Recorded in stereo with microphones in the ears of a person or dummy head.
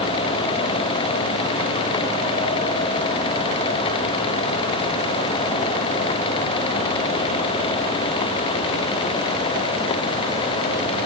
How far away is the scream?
No scream in this recording.